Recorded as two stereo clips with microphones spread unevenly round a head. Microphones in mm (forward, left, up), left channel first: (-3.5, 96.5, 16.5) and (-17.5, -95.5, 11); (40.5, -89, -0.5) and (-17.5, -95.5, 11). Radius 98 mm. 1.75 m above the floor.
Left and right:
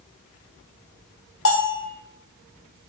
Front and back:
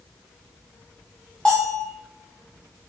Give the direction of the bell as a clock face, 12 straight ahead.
9 o'clock.